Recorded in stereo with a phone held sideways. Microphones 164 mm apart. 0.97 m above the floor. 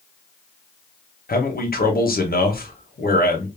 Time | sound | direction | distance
1.3 | a man speaking | 65° left (ahead or behind) | 0.7 m